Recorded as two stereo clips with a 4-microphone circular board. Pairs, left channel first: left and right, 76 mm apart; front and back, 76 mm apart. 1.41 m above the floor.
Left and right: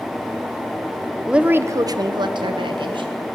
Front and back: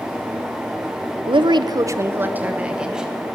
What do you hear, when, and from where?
1.3 s a woman speaking: 175° right, 0.6 m; by 3.1 s 95° right, 1.5 m